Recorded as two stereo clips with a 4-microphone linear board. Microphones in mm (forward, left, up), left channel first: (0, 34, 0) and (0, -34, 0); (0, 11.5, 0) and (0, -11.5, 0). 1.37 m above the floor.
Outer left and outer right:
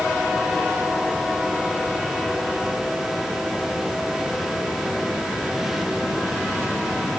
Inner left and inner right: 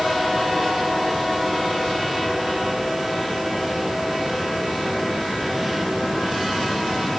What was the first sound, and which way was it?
Only background noise.